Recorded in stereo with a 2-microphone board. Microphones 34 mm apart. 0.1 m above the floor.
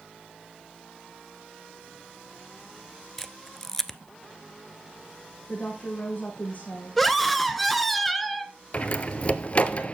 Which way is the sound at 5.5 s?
45° left (ahead or behind).